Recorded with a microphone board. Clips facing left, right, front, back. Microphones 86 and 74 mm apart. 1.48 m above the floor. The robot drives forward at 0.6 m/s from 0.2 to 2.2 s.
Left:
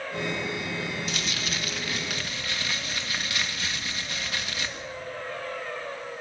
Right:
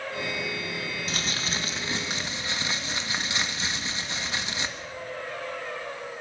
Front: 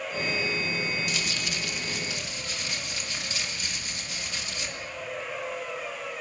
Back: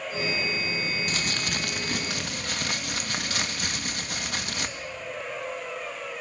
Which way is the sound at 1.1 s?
140° right.